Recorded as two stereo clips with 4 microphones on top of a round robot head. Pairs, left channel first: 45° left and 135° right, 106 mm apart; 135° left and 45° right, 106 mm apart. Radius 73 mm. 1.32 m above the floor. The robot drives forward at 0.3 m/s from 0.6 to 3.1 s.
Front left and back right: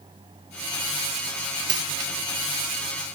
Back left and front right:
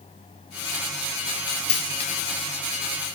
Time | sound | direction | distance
1.7 | a dropped coin | 170° left | 1.4 m